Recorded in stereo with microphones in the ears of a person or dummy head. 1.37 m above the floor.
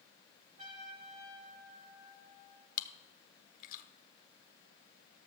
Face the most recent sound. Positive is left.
turn(degrees=50)  # may be behind; listen again after turning